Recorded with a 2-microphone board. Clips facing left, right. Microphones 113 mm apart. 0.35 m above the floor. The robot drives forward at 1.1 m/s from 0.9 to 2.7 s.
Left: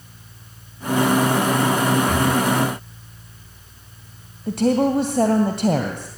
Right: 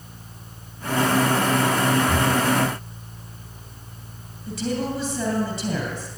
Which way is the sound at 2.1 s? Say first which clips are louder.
Left 2 dB; 10° right (ahead or behind).